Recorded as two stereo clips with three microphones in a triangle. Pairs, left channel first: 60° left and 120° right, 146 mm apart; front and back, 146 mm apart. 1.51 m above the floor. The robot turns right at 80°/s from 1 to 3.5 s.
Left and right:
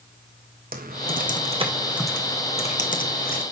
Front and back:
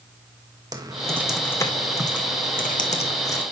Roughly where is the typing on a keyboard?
Behind right.